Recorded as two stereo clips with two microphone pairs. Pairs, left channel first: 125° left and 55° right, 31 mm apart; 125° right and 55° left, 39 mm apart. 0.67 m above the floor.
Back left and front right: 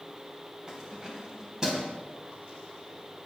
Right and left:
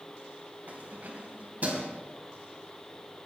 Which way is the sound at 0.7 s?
15° left.